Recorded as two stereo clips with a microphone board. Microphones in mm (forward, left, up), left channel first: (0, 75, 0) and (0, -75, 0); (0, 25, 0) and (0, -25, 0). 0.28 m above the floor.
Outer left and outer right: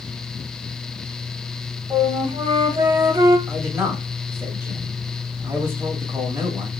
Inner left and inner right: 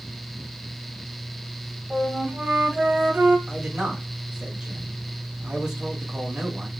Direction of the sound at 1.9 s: 30° right (ahead or behind).